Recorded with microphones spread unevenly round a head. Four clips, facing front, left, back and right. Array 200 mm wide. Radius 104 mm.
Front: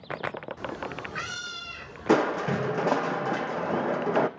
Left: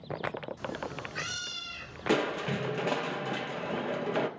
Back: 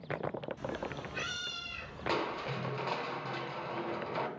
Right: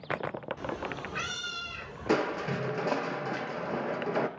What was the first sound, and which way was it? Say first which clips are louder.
A cat meowing: right 2 dB, front 4 dB; 35° right.